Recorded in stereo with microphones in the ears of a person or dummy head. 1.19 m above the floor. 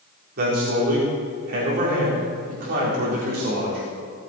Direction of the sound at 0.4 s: 55° right (ahead or behind).